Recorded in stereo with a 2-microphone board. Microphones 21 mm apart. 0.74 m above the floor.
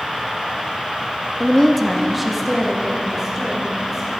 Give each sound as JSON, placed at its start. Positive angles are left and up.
{"t": 1.4, "sound": "a woman speaking", "side_deg": 20, "distance_m": 0.5}